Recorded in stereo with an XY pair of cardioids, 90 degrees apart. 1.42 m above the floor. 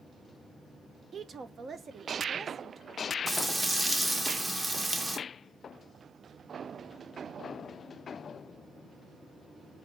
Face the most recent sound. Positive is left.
turn(degrees=-20)